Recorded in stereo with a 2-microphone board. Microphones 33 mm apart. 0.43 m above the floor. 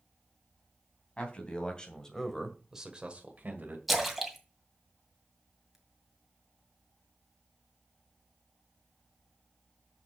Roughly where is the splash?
Centre.